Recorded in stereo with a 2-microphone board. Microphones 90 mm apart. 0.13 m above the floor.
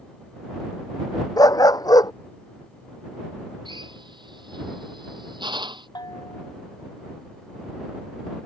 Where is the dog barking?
45° left (ahead or behind).